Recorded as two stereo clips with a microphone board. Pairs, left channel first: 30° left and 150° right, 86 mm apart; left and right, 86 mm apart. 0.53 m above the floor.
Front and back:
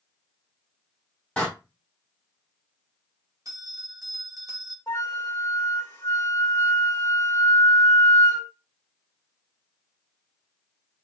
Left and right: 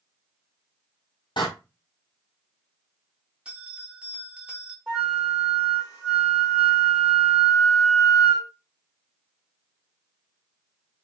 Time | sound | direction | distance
1.4 | a door slam | 110° left | 2 m
3.5 | a bell | 160° right | 0.9 m
4.9 | a flute | 20° right | 1.7 m